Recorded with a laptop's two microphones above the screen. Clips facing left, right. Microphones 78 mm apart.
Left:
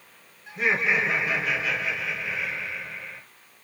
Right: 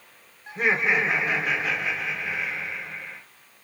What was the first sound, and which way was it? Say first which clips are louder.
Laughter: right 1 dB; 40° right (ahead or behind).